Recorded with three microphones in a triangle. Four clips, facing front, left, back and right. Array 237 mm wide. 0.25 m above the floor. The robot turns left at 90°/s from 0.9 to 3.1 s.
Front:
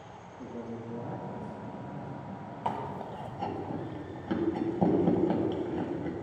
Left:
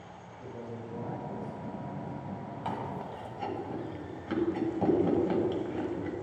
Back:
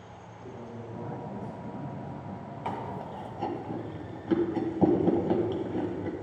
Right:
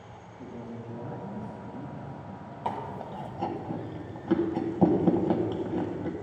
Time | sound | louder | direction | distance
0.4 | a man speaking | right 1 dB, front 3 dB | 45° right | 2.5 m
2.6 | chewing | right 3 dB, front 1 dB | 50° right | 1.5 m